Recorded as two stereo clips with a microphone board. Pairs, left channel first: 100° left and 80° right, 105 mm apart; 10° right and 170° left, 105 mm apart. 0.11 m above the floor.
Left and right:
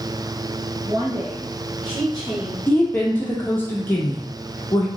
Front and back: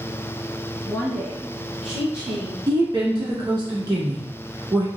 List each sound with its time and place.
0.8 s a woman speaking: 90° right, 2.0 m; by 2.6 s 135° right, 2 m
2.7 s a woman speaking: 160° left, 1.6 m